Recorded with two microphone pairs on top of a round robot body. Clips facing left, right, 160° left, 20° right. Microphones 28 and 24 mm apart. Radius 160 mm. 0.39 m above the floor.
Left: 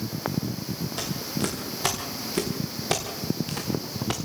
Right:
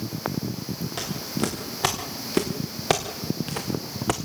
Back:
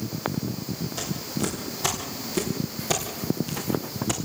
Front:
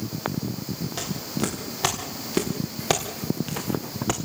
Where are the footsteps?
65° right, 6 m; by 4.2 s 75° right, 1.5 m.